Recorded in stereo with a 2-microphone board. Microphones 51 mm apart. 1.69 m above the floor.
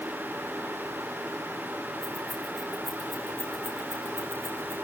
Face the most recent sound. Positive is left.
turn(degrees=75)  # may be behind; listen again after turning